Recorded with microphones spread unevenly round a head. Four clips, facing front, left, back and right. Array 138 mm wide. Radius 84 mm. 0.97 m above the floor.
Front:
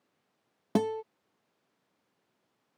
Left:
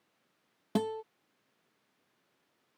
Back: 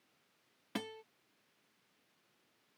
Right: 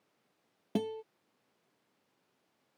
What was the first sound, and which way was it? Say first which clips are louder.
A guitar: left 3 dB, front 15 dB; 15° left.